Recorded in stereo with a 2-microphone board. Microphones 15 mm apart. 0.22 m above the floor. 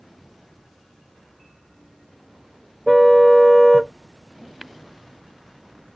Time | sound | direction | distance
2.9 | a car horn | 5° right (ahead or behind) | ?
4.6 | tapping | 15° right (ahead or behind) | ?